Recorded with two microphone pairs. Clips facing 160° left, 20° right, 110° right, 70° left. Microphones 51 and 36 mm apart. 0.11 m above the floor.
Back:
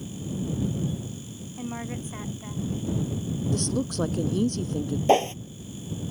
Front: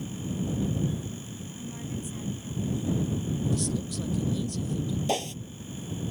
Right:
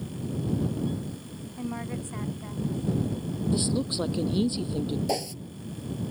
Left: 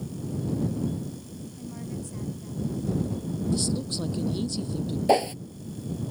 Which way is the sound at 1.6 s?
160° right.